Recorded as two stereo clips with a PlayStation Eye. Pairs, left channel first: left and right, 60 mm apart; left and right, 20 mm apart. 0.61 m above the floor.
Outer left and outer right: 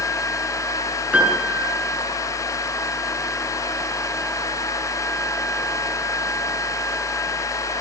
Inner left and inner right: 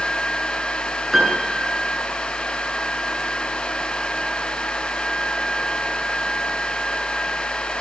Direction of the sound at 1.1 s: 20° right (ahead or behind).